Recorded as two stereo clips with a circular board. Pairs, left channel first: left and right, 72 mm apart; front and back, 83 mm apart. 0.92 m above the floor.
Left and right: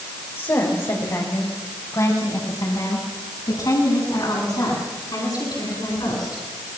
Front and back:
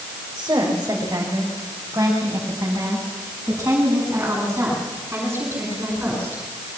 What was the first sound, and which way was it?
A woman speaking, 130° left.